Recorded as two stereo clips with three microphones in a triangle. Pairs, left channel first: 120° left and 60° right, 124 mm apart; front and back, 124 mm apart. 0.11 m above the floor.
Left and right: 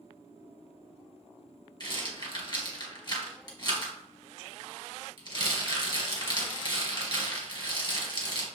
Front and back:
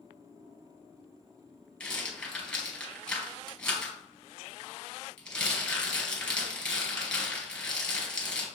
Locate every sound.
1.8 s a rattle: 80° left, 1.9 m